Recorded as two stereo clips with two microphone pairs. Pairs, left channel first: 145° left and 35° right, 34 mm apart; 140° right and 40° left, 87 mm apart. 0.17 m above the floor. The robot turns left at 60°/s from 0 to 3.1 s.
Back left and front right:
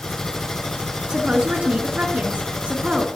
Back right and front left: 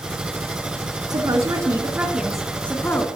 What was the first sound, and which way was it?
A woman speaking, 25° left.